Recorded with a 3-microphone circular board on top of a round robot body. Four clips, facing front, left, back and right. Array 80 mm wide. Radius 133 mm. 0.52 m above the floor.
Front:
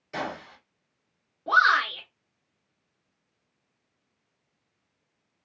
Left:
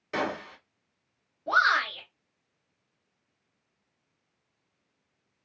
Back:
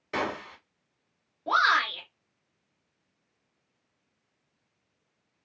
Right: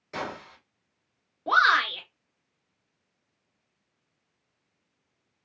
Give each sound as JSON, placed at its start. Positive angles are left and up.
{"t": 0.1, "sound": "a gunshot", "azimuth_deg": 145, "distance_m": 1.4}
{"t": 1.5, "sound": "a shout", "azimuth_deg": -95, "distance_m": 2.0}